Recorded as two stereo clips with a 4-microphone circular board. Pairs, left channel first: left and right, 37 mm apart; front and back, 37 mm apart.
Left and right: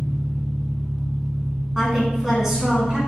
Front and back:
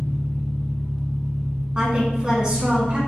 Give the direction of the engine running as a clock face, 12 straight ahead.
1 o'clock.